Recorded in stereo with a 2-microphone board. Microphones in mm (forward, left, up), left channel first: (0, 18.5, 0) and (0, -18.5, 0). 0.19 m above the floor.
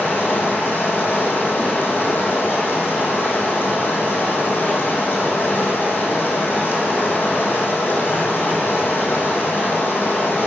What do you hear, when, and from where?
0.0 s running water: 75° left (ahead or behind), 2.5 m